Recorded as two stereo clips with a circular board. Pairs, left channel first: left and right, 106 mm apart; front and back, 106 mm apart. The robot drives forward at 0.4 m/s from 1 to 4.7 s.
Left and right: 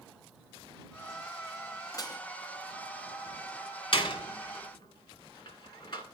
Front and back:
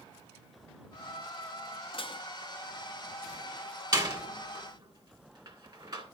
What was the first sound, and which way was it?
Dishes clattering, 35° left.